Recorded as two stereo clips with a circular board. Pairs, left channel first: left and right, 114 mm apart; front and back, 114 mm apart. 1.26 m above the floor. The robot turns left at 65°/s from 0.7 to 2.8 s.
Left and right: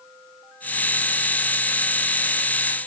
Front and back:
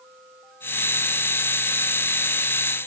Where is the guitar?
I don't hear a guitar.